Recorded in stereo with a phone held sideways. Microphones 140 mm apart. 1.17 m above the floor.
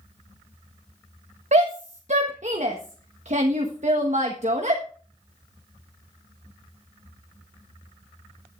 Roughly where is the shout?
Right.